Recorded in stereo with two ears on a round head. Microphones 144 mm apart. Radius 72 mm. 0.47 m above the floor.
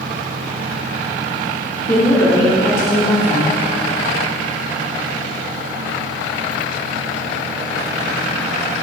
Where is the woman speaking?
20° left (ahead or behind), 1.0 m.